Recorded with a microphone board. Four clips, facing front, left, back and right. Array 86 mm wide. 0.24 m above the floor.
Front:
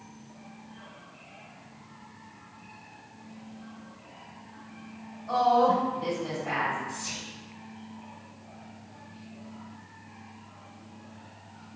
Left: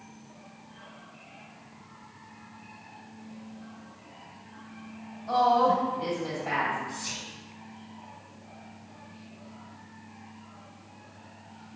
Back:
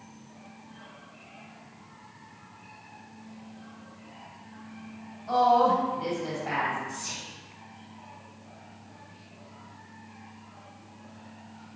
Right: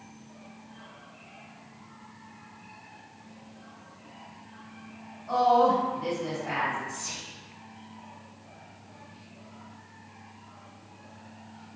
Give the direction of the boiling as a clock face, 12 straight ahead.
No boiling in this recording.